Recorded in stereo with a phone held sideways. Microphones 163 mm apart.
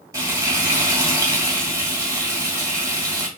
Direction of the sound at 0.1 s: 20° right (ahead or behind).